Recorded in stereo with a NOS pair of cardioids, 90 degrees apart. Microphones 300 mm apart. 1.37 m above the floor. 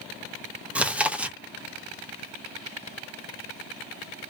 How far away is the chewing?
About 0.7 m.